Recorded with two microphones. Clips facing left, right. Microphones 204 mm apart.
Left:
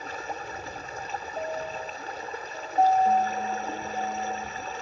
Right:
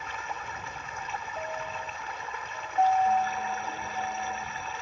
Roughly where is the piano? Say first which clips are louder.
Left 5 dB; left.